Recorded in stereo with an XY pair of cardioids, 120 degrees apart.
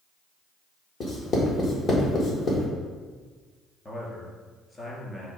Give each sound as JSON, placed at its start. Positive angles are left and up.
{"t": 1.0, "sound": "writing", "azimuth_deg": 45, "distance_m": 1.7}
{"t": 3.9, "sound": "a man speaking", "azimuth_deg": 25, "distance_m": 3.0}